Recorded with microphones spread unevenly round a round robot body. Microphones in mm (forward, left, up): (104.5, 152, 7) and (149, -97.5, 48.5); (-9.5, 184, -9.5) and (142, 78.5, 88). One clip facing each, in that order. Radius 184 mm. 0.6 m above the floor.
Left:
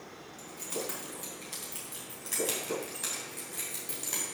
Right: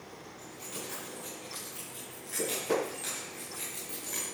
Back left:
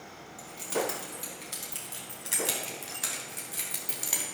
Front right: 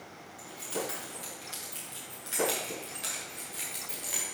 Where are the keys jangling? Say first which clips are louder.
Left 7 dB, back left 5 dB; 130° left, 3.5 m; by 4.2 s 160° left, 2 m.